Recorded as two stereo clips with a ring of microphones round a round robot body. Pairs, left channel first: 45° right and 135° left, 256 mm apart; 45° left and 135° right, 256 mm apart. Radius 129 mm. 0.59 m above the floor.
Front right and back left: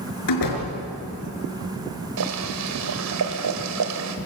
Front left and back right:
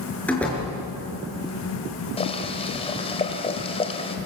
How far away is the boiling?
About 2.5 m.